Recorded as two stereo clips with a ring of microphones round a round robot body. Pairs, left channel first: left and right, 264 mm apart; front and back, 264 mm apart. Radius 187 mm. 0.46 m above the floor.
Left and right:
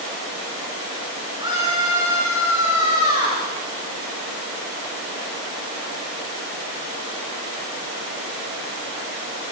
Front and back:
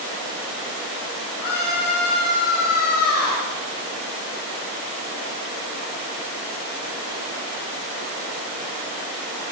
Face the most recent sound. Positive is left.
turn(degrees=-15)